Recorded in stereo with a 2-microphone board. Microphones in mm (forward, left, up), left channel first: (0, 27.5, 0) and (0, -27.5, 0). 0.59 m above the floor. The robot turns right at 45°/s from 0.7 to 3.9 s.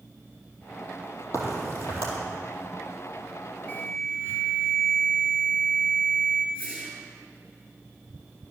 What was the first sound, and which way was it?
A crack, 70° left (ahead or behind).